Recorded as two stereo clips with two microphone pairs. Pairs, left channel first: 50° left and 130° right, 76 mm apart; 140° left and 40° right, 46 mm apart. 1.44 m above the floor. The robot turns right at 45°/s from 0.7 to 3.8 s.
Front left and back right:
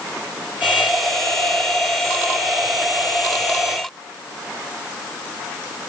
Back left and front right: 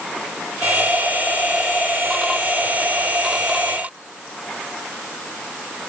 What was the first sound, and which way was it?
Only background noise.